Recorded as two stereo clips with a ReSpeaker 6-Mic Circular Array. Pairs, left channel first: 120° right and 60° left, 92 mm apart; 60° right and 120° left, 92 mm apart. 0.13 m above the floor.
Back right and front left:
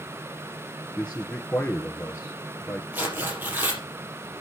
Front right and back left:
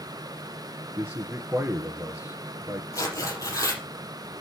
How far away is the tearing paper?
About 5 m.